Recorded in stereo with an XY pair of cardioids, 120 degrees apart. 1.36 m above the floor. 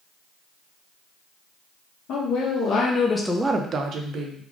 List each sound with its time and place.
2.1 s a woman speaking: 70° left, 1.6 m; by 4.4 s 70° right, 1.4 m